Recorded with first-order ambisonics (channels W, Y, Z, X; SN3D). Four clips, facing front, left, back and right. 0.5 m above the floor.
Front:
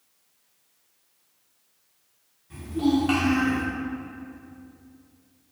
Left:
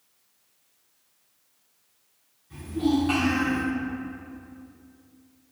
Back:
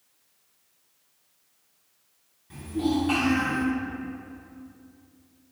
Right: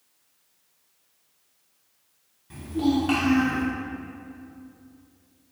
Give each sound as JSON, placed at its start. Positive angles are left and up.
{"t": 2.5, "sound": "a child speaking", "azimuth_deg": -110, "distance_m": 1.0}